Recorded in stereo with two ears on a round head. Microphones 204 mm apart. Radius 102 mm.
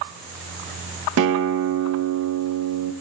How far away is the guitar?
About 0.6 m.